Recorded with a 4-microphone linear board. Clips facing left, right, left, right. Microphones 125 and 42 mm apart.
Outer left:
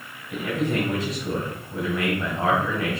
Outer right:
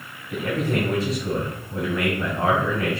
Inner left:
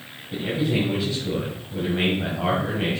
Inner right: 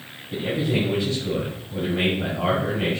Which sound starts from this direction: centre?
A man speaking, at 0.3 s.